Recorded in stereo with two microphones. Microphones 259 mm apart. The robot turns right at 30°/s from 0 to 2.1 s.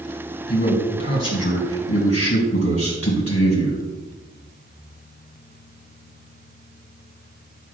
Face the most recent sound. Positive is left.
turn(degrees=90)